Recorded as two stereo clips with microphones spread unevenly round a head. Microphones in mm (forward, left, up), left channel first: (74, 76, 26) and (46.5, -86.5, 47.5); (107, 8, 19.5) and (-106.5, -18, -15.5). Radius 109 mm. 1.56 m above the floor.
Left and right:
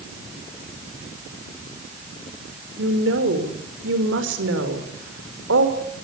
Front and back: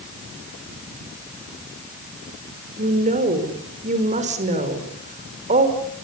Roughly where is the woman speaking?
Behind right.